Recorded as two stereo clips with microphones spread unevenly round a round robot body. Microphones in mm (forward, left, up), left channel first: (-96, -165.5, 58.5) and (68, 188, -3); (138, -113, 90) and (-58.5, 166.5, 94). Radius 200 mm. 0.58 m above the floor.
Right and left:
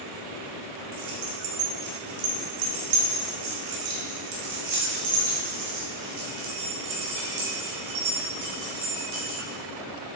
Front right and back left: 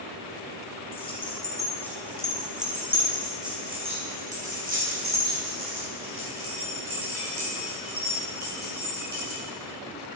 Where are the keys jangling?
20° left, 3 m; by 9.4 s 90° left, 5.5 m.